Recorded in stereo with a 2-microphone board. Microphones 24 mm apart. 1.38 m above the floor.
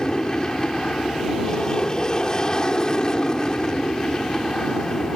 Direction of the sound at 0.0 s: 25° left (ahead or behind).